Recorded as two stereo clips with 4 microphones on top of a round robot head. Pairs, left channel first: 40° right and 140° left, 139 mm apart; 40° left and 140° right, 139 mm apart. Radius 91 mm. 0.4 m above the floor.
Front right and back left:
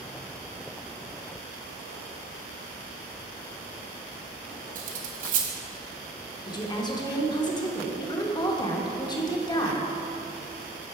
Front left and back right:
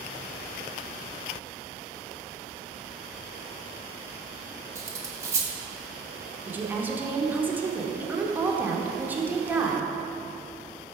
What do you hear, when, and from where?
4.8 s cutlery clinking: 155° left, 1.0 m
6.5 s a woman speaking: 70° right, 1.0 m